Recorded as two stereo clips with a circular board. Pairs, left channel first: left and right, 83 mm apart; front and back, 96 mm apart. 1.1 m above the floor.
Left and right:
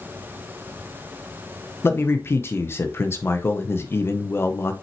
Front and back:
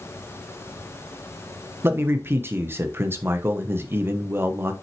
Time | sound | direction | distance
1.8 | a man speaking | 130° left | 0.8 m